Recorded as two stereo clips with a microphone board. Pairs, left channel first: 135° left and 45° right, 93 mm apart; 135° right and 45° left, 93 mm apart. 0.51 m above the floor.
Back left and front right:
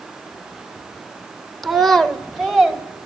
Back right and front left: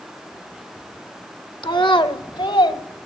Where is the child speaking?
135° right, 0.7 m; by 2.8 s 140° right, 1.4 m.